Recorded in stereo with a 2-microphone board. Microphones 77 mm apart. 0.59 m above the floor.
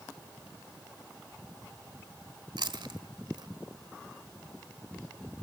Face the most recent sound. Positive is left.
turn(degrees=-70)  # may be behind; listen again after turning